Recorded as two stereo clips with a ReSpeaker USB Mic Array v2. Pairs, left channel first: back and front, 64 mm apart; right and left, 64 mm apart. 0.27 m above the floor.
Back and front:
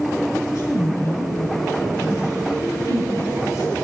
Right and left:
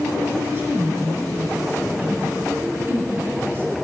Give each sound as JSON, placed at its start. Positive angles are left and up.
{"t": 0.4, "sound": "a woman speaking", "azimuth_deg": 150, "distance_m": 5.0}